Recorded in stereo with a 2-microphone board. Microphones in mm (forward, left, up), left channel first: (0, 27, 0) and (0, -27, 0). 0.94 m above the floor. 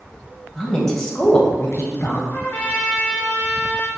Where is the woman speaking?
5° right (ahead or behind), 1.1 m; by 2.2 s 55° left (ahead or behind), 0.7 m.